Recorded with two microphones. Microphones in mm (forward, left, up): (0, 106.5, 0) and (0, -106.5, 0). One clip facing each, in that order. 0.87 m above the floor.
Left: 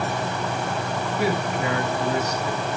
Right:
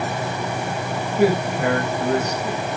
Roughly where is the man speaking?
Right.